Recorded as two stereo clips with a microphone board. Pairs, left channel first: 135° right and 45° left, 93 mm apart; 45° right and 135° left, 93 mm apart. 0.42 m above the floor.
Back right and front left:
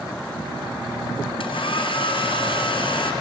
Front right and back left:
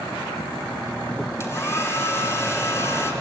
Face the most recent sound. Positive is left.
turn(degrees=-105)